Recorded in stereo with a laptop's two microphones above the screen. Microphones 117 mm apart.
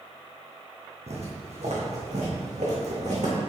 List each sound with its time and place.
1.1 s footsteps: 65° right (ahead or behind), 3 m; by 3.3 s 75° right (ahead or behind), 4 m